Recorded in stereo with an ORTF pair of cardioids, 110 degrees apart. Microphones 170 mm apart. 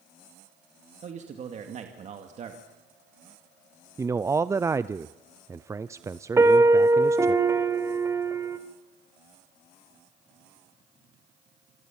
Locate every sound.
1.0 s a man speaking: 45° right, 2 m
4.0 s a man speaking: 15° right, 0.6 m
6.4 s a piano: 15° right, 1.4 m